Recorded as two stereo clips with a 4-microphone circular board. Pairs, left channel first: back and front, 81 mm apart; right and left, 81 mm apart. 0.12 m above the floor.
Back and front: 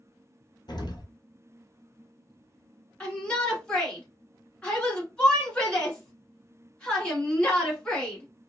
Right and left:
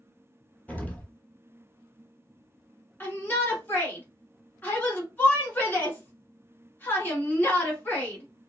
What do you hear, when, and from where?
0.7 s an explosion: 160° right, 0.6 m
3.0 s a shout: 120° right, 1.1 m